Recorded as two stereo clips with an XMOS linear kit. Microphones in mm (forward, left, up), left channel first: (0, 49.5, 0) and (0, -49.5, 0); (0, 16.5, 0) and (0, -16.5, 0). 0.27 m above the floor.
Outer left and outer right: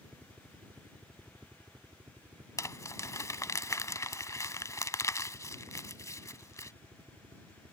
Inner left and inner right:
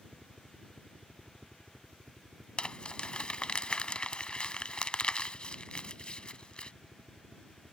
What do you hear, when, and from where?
0.0 s a helicopter: 20° right (ahead or behind); by 7.7 s 75° right (ahead or behind)
2.6 s crumpling: 35° left (ahead or behind)